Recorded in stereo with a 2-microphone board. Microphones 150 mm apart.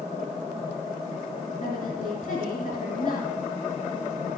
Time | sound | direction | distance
1.6 | a woman speaking | 60° left (ahead or behind) | 2.5 m